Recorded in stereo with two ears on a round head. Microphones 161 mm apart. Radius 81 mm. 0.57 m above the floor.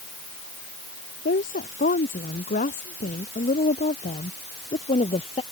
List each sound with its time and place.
1.2 s a woman speaking: 50° left (ahead or behind); by 5.4 s 35° left (ahead or behind)